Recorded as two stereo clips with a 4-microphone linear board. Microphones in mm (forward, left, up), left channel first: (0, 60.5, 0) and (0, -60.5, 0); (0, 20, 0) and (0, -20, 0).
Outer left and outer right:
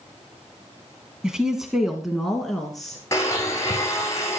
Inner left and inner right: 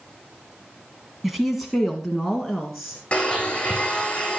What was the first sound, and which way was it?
A woman speaking, 5° right (ahead or behind).